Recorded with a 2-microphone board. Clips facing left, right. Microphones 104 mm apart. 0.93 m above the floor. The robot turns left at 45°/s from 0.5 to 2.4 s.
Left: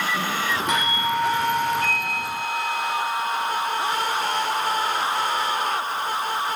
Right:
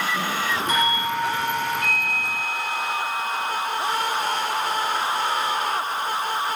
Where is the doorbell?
90° left, 5.5 m; by 3.7 s 15° left, 5.5 m.